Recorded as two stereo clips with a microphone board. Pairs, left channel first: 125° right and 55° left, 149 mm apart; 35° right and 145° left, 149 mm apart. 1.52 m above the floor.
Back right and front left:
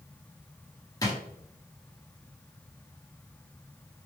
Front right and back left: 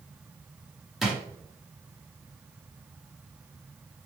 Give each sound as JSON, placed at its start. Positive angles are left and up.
{"t": 1.0, "sound": "a drawer", "azimuth_deg": -130, "distance_m": 1.0}